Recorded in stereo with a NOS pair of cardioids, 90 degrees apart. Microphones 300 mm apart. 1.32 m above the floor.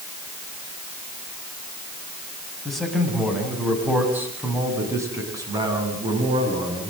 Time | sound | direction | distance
2.6 | a man speaking | straight ahead | 9.5 m